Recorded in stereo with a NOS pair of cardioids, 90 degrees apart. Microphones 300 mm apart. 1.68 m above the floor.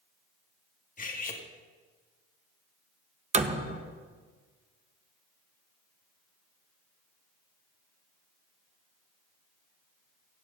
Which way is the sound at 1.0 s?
30° left.